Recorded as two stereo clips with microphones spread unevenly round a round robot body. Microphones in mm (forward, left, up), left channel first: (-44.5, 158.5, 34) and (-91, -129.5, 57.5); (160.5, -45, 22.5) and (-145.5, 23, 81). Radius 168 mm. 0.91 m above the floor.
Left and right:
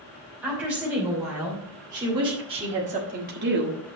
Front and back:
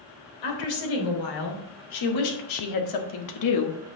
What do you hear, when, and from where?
0.4 s a woman speaking: 15° right, 3 m; by 4.0 s 55° right, 0.9 m